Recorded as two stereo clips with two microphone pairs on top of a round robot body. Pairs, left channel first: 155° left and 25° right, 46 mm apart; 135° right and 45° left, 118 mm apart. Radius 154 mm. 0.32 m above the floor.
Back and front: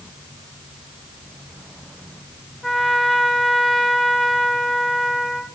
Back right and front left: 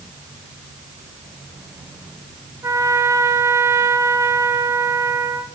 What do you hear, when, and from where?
2.6 s a trumpet: 90° left, 1.4 m